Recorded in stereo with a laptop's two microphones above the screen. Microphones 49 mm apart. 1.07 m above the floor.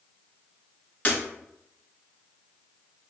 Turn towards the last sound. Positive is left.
turn(degrees=35)  # may be behind; listen again after turning